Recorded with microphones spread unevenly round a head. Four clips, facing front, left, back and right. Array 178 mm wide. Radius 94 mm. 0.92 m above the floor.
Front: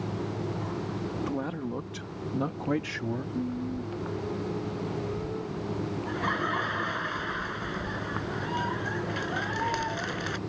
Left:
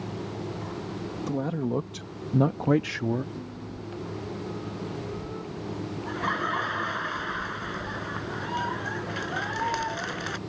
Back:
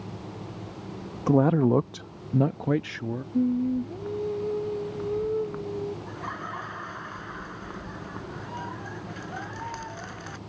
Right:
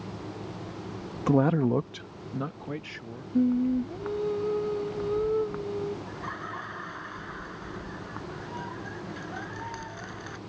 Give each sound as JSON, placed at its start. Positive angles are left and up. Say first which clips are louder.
{"t": 1.3, "sound": "a man speaking", "louder": "right 7 dB, back 12 dB", "azimuth_deg": -145}
{"t": 3.3, "sound": "singing", "louder": "right 15 dB, back 7 dB", "azimuth_deg": -125}
{"t": 6.1, "sound": "laughter", "louder": "left 8 dB, front 6 dB", "azimuth_deg": 55}